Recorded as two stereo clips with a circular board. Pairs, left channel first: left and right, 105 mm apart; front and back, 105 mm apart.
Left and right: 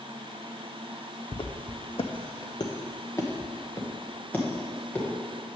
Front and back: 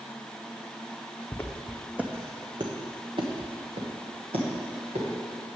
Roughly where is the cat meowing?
I don't hear a cat meowing.